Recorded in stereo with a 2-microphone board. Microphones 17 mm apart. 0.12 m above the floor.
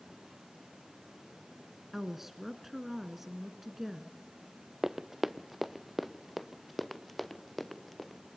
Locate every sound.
1.9 s a woman speaking: 15° right (ahead or behind), 1.5 m
4.8 s running footsteps: 25° right (ahead or behind), 0.6 m; by 8.2 s 5° left (ahead or behind), 2.5 m